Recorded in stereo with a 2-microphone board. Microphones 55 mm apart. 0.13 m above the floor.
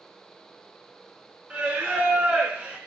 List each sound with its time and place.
1.5 s singing: 25° right (ahead or behind), 0.6 m